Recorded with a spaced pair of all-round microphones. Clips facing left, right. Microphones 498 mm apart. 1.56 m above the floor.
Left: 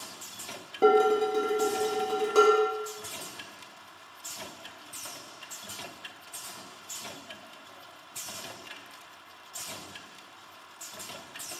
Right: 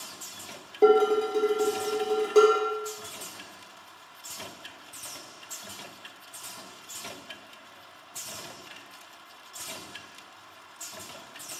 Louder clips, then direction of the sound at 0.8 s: Right 2 dB; 30° left (ahead or behind).